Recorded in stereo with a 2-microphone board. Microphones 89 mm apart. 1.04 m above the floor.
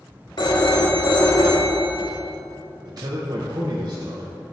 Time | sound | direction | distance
0.4 | a phone ringing | 55° left (ahead or behind) | 1.0 m
2.9 | a man speaking | 50° right (ahead or behind) | 0.7 m